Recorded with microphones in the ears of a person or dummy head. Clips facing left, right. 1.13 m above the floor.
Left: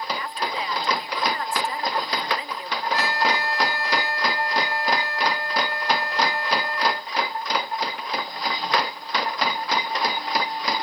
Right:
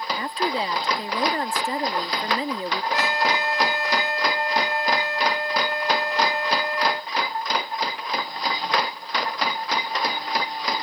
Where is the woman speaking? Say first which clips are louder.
Right 4 dB; 30° right (ahead or behind).